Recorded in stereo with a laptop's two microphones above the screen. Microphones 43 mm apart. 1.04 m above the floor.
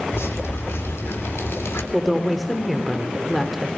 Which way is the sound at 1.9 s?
Centre (ahead or behind).